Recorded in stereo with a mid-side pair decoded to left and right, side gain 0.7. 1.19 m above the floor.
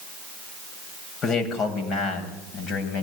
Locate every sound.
1.2 s a man speaking: 40° left, 7.5 m; by 3.0 s 45° left, 8 m